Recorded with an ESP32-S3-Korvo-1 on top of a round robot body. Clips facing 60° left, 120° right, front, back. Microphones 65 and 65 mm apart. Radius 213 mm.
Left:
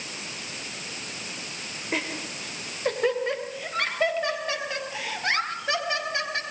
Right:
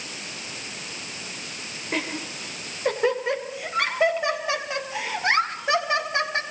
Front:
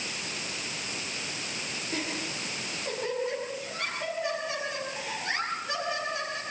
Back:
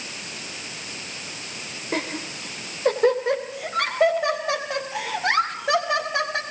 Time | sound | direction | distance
1.9 | laughter | 150° left | 3 m